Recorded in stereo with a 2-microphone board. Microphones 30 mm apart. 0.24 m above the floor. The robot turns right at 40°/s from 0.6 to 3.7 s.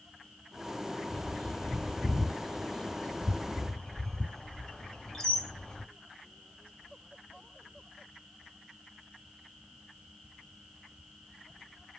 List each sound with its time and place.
1.1 s a bird: 20° left (ahead or behind), 1.2 m